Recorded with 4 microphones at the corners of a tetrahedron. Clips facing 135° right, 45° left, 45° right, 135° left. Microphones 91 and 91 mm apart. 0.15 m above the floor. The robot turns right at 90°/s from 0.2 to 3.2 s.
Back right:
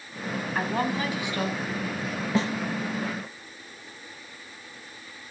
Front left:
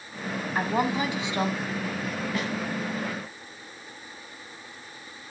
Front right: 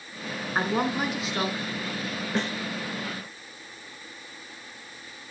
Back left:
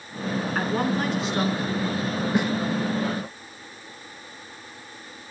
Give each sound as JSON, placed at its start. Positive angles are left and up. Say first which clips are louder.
{"t": 0.6, "sound": "a woman speaking", "louder": "front left 2 dB, front right 1 dB", "azimuth_deg": -25, "distance_m": 1.3}
{"t": 2.4, "sound": "a snare drum", "louder": "back right 8 dB, back left 4 dB", "azimuth_deg": -165, "distance_m": 1.5}